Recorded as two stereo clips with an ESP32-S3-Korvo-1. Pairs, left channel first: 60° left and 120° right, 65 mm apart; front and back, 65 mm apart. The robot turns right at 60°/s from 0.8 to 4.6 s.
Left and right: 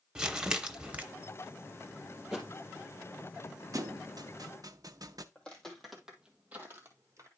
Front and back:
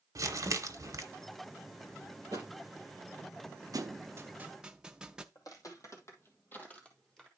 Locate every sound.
0.1 s crumpling: 165° left, 1.0 m; by 1.0 s 175° left, 1.0 m
2.3 s a thud: 160° left, 2.5 m; by 2.5 s 170° left, 2.5 m
3.7 s a thud: 155° right, 0.6 m; by 5.2 s 100° right, 0.6 m
5.3 s footsteps: 15° right, 2 m; by 7.3 s 90° right, 1.9 m